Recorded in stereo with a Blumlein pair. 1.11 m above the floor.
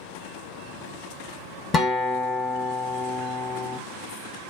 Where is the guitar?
20° left, 0.9 m.